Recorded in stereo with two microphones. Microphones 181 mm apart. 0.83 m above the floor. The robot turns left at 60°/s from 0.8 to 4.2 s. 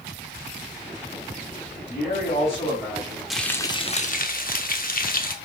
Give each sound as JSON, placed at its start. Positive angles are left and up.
{"t": 1.8, "sound": "a man speaking", "azimuth_deg": 65, "distance_m": 3.0}
{"t": 3.3, "sound": "frying", "azimuth_deg": 180, "distance_m": 0.7}